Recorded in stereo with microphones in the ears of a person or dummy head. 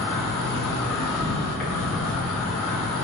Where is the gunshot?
I don't hear a gunshot.